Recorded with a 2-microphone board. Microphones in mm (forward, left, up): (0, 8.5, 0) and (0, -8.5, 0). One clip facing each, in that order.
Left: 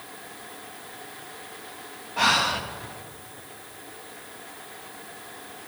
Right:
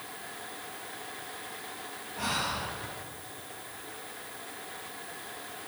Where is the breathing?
60° left (ahead or behind), 1.5 m.